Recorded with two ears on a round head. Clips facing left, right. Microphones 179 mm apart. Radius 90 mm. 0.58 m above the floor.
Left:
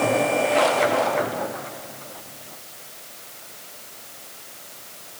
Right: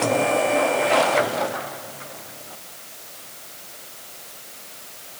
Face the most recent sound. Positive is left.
No sound to turn to.